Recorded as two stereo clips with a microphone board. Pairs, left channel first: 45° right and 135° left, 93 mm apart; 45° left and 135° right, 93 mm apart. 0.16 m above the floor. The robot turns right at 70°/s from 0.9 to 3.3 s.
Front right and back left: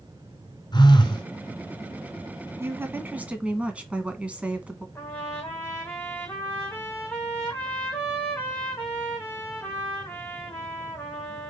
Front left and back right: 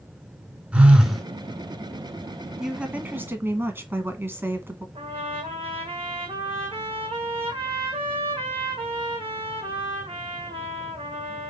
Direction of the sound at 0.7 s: 60° right.